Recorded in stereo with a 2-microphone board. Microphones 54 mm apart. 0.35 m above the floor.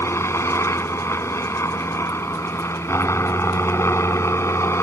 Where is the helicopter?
55° left (ahead or behind).